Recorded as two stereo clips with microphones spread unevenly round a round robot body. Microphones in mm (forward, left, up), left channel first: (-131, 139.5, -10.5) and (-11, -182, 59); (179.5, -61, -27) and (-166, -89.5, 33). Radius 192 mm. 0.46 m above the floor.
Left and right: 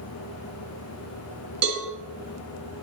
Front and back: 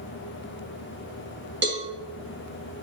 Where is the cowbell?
115° right, 3 m.